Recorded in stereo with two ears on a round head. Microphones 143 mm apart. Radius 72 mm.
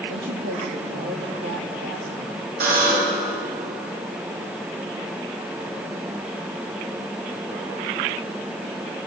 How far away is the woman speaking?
About 3 m.